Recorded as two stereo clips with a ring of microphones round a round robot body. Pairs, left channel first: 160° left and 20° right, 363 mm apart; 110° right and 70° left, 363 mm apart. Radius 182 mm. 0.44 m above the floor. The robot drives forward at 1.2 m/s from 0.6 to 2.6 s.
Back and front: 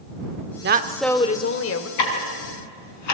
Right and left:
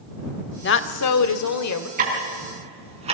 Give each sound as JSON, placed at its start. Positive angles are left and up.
{"t": 0.6, "sound": "a woman speaking", "azimuth_deg": -65, "distance_m": 0.9}
{"t": 2.0, "sound": "ticking", "azimuth_deg": 135, "distance_m": 4.0}